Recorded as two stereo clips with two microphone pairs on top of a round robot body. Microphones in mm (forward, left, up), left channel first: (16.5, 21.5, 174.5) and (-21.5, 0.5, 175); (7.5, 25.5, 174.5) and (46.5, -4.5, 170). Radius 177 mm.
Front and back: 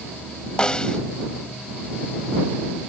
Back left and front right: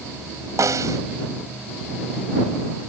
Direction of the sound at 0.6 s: 45° right.